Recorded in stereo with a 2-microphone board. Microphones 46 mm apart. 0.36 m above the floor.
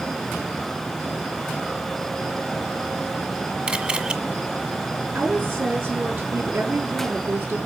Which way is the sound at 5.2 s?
60° right (ahead or behind).